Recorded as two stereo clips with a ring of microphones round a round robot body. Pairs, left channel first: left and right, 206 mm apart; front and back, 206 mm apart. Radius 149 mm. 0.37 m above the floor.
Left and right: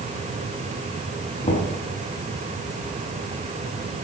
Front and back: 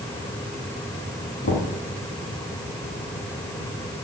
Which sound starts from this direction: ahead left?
Knocking, at 1.4 s.